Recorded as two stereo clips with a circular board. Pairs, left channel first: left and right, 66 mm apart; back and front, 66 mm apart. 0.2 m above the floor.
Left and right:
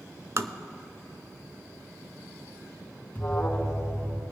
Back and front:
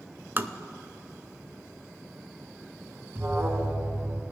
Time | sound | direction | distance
0.4 | tapping | 55° right | 0.5 m
3.1 | an alarm | 45° left | 1.4 m